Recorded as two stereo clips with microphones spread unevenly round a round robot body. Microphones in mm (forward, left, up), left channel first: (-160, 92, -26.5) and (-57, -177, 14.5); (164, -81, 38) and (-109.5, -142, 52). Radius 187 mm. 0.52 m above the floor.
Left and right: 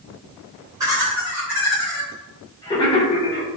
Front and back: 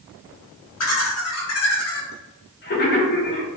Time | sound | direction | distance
0.8 | laughter | 15° left | 1.9 m